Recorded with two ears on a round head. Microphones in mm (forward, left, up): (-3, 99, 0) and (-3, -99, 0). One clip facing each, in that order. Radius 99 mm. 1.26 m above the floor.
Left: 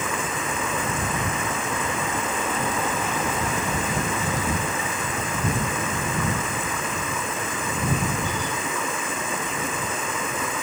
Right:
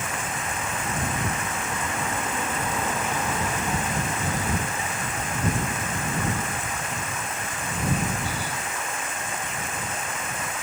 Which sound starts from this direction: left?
Running water, at 0.0 s.